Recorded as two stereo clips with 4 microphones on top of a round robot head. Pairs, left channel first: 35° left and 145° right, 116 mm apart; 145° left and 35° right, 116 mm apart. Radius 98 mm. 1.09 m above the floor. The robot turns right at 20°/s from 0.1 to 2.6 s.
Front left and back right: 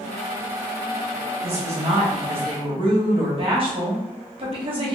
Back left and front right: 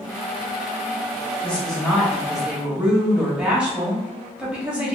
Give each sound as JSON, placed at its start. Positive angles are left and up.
{"t": 1.4, "sound": "a woman speaking", "azimuth_deg": -140, "distance_m": 1.0}